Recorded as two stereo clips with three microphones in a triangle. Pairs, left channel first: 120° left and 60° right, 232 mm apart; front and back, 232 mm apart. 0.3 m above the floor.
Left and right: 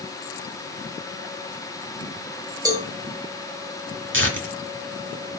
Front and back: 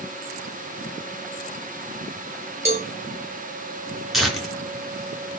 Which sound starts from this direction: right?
Tearing paper, at 4.1 s.